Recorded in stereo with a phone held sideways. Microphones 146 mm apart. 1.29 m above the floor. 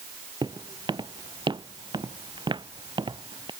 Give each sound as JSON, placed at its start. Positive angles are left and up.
{"t": 0.4, "sound": "footsteps", "side_deg": -35}